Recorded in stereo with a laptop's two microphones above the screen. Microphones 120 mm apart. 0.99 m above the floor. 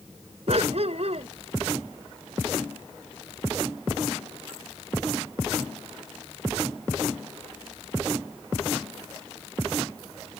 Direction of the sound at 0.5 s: 60° right (ahead or behind).